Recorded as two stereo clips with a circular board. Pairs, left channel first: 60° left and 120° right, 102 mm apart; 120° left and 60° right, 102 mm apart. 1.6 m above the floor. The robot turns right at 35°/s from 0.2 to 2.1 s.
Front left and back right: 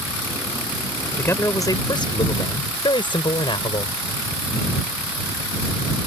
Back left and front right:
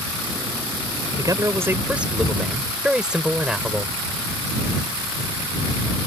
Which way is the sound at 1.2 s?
10° right.